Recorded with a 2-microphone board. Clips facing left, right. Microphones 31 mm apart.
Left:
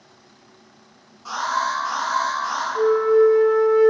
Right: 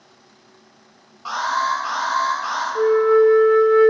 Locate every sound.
1.2 s an alarm: 45° right (ahead or behind), 2.5 m
2.8 s a flute: 40° right (ahead or behind), 0.8 m